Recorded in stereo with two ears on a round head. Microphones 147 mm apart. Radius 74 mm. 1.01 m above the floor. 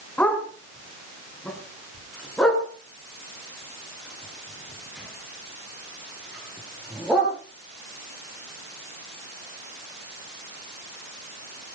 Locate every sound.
0.2 s a dog barking: 10° left (ahead or behind), 4 m; by 7.3 s centre (ahead or behind), 7.5 m